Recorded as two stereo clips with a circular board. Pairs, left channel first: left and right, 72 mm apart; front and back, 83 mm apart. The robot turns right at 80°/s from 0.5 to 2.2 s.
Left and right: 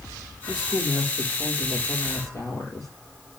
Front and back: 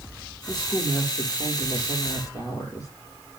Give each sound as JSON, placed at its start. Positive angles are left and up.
{"t": 0.5, "sound": "a woman speaking", "azimuth_deg": -90, "distance_m": 3.0}